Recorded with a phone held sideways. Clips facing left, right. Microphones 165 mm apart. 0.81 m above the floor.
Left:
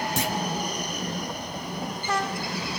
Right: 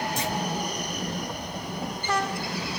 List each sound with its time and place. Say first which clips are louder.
0.2 s a clunk: left 1 dB; 80° left, 2.5 m